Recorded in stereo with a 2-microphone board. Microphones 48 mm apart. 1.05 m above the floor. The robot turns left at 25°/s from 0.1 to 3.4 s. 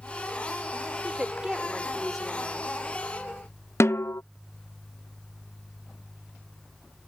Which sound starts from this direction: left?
A snare drum, at 3.8 s.